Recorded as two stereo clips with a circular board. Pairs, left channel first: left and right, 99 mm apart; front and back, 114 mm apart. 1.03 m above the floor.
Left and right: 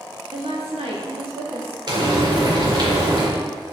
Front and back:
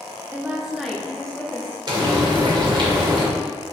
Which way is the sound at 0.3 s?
105° right.